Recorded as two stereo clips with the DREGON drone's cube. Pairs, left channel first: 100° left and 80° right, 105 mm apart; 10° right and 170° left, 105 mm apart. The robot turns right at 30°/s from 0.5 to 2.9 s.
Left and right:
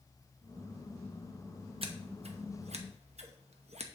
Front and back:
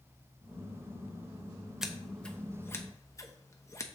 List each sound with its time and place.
1.8 s scissors: 105° right, 0.8 m; by 3.9 s 75° right, 0.8 m